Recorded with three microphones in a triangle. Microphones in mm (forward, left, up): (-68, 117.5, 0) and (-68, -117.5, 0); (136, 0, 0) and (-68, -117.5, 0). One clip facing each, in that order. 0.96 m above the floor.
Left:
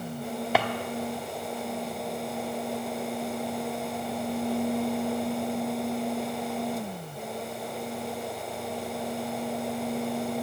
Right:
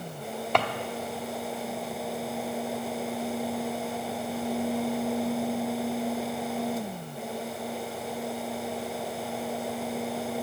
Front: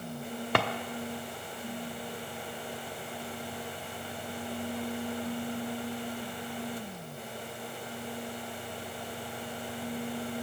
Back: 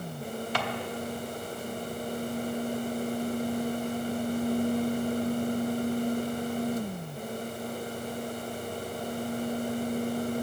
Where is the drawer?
5° left, 0.8 m.